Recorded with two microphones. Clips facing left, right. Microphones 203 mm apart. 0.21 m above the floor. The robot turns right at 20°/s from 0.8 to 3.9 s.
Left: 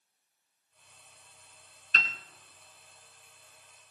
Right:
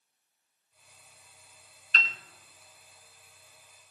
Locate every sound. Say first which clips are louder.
1.9 s a piano: even; 45° left (ahead or behind), 1.3 m